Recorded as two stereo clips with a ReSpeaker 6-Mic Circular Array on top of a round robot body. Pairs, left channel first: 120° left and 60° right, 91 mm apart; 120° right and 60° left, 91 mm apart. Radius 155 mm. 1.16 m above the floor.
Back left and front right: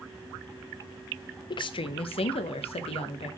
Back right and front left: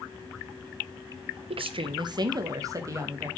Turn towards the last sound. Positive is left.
turn(degrees=120)